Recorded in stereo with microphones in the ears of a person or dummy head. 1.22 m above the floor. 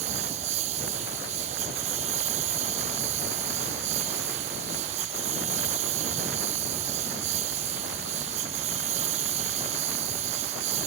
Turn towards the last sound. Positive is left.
turn(degrees=-40)  # may be behind; listen again after turning